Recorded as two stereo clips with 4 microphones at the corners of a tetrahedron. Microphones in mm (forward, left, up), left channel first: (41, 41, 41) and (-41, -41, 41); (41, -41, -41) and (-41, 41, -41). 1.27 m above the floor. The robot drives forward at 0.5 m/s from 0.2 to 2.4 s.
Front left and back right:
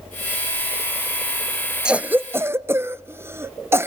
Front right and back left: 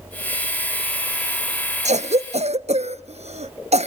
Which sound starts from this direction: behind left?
A cough, at 1.9 s.